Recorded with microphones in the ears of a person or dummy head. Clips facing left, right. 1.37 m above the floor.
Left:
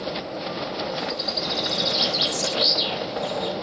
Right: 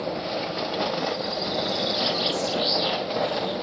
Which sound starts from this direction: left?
A bird, at 1.0 s.